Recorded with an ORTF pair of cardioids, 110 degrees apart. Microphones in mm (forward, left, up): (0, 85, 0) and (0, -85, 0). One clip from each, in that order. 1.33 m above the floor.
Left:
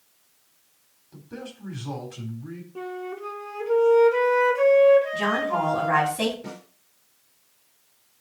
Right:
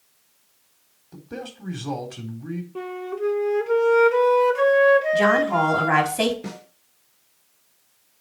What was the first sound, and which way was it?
A man speaking, 35° right.